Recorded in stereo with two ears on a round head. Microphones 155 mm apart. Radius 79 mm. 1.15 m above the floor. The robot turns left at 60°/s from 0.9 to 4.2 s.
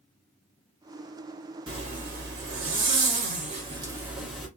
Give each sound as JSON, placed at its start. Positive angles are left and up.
{"t": 1.7, "sound": "a zipper", "azimuth_deg": -25, "distance_m": 1.4}